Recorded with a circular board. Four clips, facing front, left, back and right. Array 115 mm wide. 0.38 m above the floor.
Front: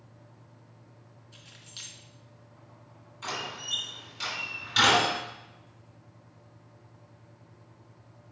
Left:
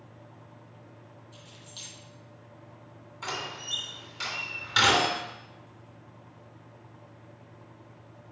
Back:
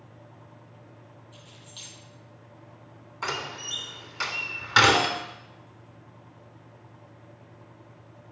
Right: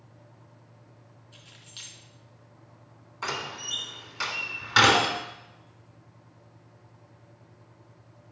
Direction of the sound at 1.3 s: 40° right.